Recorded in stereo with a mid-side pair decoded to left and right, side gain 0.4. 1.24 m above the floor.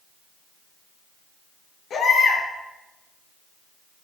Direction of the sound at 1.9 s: 70° left.